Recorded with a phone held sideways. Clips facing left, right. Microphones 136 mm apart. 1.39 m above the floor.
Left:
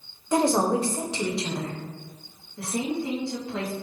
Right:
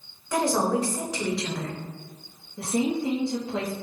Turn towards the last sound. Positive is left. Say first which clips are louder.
# right 3 dB
turn(degrees=-25)  # may be behind; listen again after turning